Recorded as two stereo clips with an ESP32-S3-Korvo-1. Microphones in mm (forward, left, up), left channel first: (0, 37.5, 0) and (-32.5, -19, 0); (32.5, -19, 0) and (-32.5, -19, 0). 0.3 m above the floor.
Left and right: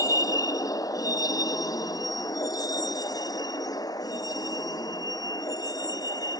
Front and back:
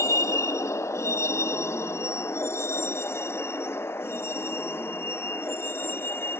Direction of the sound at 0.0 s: 35° left.